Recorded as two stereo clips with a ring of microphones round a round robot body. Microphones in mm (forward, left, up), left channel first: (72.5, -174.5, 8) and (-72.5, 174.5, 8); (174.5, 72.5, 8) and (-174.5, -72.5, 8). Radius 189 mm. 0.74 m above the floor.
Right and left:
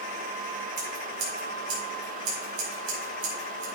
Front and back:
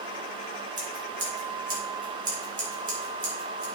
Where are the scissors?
130° left, 4.5 m.